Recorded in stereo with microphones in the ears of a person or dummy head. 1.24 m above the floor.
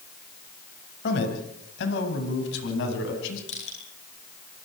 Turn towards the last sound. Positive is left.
turn(degrees=45)  # may be behind; listen again after turning